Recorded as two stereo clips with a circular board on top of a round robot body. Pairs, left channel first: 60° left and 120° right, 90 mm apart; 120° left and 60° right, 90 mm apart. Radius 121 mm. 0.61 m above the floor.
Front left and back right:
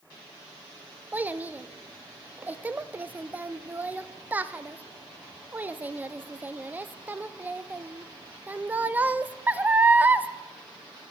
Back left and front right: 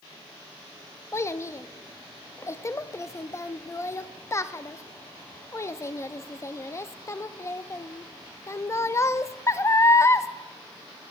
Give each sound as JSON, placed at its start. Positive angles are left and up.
{"t": 1.1, "sound": "a child speaking", "azimuth_deg": 170, "distance_m": 0.7}